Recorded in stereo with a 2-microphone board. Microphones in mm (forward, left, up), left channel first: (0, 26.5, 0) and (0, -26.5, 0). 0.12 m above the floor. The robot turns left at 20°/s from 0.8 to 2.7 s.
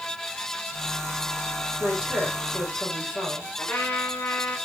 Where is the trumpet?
30° left (ahead or behind), 2.5 m.